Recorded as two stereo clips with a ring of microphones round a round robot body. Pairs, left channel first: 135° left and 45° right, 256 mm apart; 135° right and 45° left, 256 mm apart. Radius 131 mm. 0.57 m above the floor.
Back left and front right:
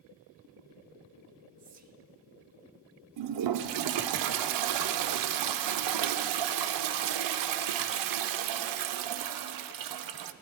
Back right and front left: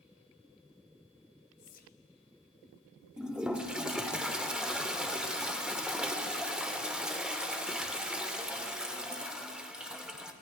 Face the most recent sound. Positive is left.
turn(degrees=-40)